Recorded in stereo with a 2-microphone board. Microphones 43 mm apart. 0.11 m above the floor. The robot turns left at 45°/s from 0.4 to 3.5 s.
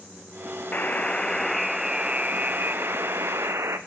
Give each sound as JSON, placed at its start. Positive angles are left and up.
{"t": 0.7, "sound": "a buzzer", "azimuth_deg": 40, "distance_m": 2.5}